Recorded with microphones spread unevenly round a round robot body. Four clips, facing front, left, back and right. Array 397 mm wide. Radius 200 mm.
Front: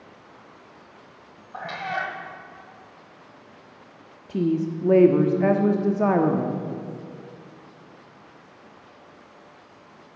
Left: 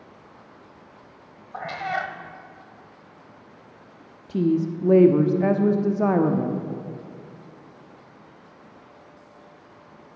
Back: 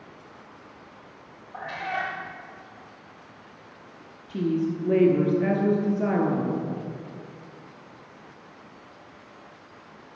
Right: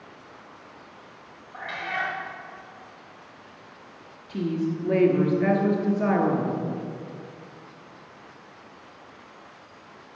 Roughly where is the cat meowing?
Ahead left.